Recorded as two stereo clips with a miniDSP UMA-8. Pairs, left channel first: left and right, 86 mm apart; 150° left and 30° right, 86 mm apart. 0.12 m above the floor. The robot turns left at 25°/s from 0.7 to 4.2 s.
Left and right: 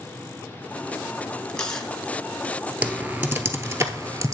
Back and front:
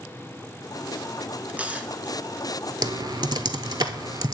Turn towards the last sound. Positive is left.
turn(degrees=-55)